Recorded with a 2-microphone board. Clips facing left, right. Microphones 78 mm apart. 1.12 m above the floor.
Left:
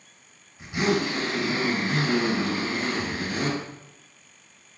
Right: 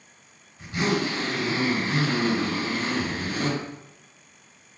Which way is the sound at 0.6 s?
10° left (ahead or behind).